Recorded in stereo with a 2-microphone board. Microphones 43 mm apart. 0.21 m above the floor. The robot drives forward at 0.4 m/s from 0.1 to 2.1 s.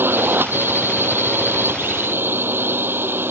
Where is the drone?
55° right (ahead or behind).